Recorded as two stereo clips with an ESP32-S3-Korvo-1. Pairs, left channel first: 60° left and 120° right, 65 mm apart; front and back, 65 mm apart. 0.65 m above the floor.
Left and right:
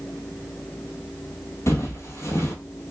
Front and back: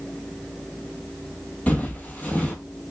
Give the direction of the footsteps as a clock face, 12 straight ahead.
10 o'clock.